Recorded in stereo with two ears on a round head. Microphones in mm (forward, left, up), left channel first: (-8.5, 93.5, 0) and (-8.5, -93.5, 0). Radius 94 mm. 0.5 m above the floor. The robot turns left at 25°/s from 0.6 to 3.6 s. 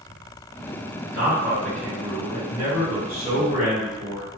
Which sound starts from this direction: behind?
A man speaking, at 1.1 s.